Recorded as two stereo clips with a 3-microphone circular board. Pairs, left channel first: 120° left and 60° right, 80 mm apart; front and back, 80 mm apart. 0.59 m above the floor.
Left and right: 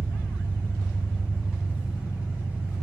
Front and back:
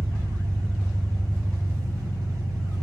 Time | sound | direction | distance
0.0 | an engine running | 130° right | 1.5 m